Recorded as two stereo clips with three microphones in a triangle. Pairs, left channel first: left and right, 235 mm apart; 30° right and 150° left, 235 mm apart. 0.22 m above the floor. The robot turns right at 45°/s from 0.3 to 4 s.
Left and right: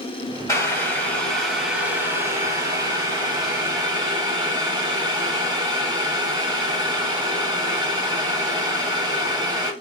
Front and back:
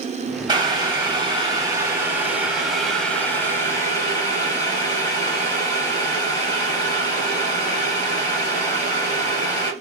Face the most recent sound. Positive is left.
turn(degrees=-65)